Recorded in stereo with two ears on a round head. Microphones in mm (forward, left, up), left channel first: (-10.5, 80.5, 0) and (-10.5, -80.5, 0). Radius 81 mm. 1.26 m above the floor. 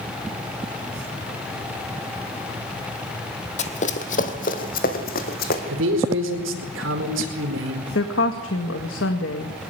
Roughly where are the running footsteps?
Left.